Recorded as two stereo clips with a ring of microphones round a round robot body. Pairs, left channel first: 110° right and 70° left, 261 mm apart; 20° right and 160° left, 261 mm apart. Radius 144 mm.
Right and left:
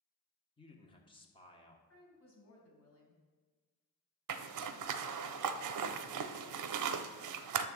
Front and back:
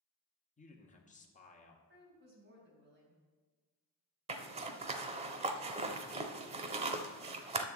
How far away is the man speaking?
About 1.4 m.